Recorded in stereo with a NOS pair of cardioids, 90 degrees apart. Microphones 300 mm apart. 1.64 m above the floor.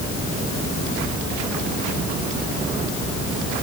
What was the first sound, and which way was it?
Only background noise.